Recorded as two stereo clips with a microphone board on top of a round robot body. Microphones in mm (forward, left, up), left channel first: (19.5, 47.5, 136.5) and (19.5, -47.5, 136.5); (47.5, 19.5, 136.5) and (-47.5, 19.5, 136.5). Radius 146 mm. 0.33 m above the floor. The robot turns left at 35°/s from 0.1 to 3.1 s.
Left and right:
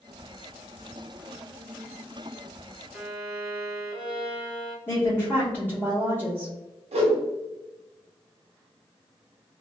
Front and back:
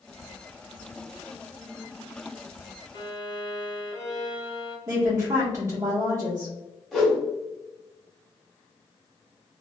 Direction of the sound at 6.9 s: 90° right.